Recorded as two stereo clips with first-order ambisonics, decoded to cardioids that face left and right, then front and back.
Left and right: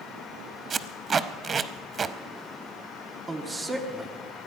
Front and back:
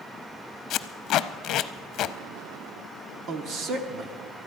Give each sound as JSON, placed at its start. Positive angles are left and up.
{"t": 0.7, "sound": "tape being pulled", "azimuth_deg": -30, "distance_m": 0.5}
{"t": 3.3, "sound": "a woman speaking", "azimuth_deg": -160, "distance_m": 1.2}